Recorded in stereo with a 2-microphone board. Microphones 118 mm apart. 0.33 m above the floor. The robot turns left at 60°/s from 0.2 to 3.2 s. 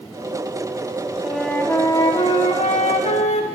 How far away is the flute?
About 0.6 m.